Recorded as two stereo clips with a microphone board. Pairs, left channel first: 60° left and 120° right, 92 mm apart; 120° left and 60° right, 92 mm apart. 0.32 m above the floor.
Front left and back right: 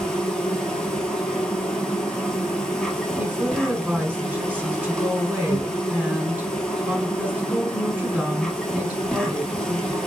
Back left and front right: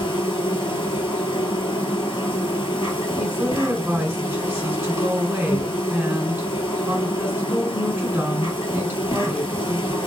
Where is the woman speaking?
75° right, 1.1 m.